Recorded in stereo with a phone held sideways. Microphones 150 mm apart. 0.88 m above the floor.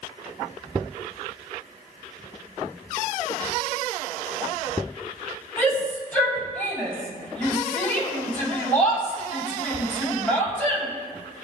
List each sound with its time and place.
5.6 s a shout: 10° left (ahead or behind), 6.5 m